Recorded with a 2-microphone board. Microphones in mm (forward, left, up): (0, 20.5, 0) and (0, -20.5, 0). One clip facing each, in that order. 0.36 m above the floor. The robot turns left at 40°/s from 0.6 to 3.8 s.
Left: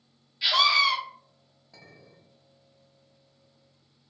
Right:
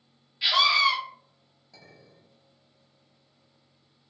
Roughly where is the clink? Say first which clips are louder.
Left 1 dB; centre.